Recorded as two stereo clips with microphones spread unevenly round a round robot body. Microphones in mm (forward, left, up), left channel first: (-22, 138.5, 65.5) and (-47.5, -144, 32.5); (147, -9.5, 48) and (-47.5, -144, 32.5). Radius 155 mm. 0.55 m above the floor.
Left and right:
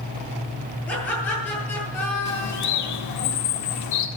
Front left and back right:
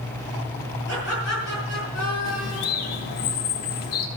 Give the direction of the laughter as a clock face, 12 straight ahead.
6 o'clock.